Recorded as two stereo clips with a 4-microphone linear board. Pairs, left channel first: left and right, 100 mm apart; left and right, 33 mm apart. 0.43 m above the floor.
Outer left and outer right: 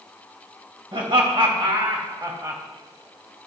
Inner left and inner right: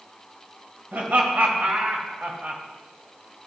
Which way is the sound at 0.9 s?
60° right (ahead or behind).